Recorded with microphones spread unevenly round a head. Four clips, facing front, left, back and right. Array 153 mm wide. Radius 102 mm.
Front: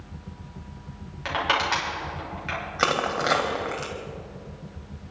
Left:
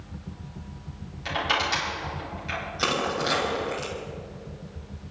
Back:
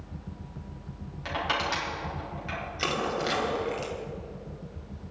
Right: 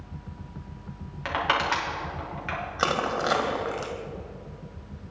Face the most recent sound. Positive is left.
turn(degrees=-25)